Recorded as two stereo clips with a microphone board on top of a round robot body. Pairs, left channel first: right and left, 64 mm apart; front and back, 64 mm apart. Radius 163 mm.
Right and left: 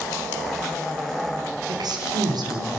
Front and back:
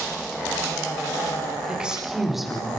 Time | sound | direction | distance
1.7 | a woman speaking | 105° left | 5 m